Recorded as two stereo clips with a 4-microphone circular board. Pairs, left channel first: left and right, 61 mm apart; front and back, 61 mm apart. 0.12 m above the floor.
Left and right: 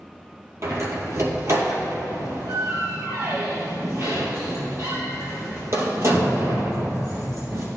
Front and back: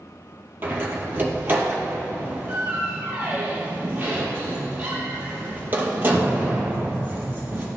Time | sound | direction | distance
0.6 | a door slam | 125° right | 2 m